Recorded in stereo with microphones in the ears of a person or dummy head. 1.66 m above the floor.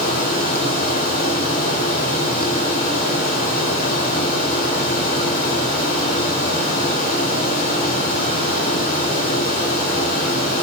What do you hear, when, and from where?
0.0 s a fan: 45° left (ahead or behind), 1.5 m